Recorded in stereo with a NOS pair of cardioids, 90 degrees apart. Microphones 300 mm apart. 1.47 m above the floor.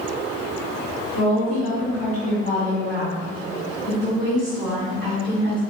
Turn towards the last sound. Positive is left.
turn(degrees=-10)